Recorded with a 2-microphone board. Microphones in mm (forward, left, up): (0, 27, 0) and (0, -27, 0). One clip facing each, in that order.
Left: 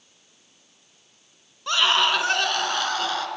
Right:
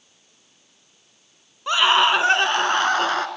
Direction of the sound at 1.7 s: 15° right (ahead or behind).